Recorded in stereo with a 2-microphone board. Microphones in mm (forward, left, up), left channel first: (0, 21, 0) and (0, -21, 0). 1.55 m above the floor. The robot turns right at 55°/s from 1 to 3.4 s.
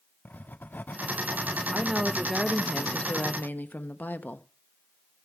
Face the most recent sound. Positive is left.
turn(degrees=55)